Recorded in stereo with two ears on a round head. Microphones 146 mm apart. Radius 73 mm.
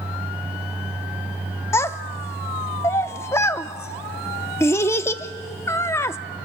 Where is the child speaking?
15° left (ahead or behind), 0.5 m.